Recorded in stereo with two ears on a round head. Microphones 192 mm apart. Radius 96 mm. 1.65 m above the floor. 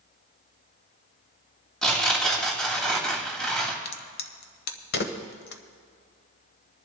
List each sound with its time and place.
1.8 s tearing paper: 5° left (ahead or behind), 2.5 m
3.9 s a crack: 50° left (ahead or behind), 1.0 m